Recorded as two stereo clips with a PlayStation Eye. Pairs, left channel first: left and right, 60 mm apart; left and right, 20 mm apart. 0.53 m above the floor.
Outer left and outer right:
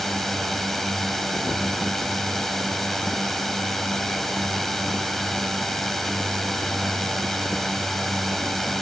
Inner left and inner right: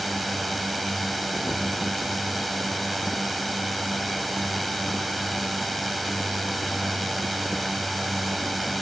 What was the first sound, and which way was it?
A drone, centre (ahead or behind).